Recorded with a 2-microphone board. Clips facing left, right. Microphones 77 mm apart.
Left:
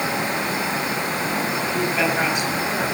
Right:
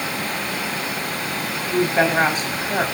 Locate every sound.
1.7 s a woman speaking: 40° right (ahead or behind), 4 m